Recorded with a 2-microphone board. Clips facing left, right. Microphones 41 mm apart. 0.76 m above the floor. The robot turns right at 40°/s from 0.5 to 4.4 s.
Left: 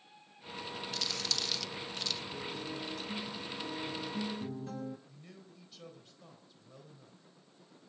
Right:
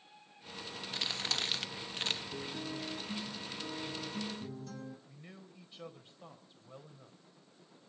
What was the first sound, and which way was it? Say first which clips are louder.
Crumpling: right 2 dB; 25° right (ahead or behind).